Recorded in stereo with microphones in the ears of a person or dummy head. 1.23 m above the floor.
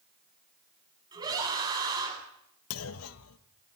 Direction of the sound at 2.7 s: 80° left.